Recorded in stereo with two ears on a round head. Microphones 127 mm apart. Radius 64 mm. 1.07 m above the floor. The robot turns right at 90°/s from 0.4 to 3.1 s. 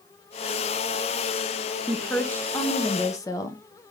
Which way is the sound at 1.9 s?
5° right (ahead or behind).